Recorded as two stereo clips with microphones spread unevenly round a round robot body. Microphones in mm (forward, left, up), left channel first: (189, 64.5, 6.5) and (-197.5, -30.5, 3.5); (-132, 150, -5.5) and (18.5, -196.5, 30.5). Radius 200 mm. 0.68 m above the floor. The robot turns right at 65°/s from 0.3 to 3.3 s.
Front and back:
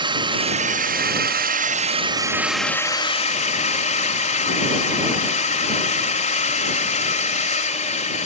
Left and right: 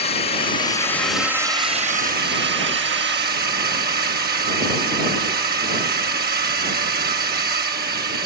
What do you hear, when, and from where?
0.0 s a drone: 135° left; by 8.3 s 30° right